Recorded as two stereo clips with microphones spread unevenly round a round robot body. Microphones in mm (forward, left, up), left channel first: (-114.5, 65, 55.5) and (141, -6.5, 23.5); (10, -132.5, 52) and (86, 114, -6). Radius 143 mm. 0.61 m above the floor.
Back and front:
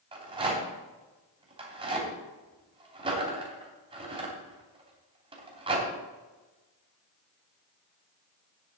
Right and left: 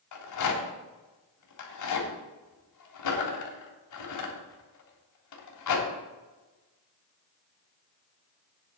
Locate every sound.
0.1 s a rattle: 90° right, 3 m